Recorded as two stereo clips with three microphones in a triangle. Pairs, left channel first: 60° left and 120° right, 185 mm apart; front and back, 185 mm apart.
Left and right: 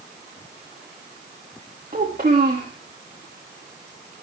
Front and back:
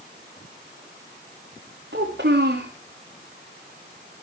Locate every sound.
1.9 s a child speaking: 165° right, 4.5 m